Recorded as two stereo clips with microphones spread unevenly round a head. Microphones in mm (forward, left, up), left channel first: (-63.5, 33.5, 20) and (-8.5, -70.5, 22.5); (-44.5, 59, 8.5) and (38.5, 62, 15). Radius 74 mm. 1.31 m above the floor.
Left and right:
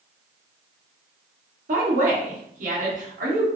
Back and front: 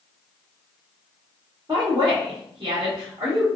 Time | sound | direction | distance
1.7 | a woman speaking | 60° right | 1.4 m